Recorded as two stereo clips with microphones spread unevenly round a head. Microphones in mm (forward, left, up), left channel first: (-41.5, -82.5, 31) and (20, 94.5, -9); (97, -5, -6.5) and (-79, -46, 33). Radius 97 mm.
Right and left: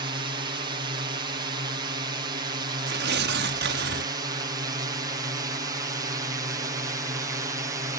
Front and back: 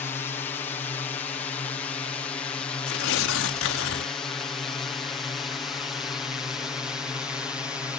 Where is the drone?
65° left; by 8.0 s 95° left.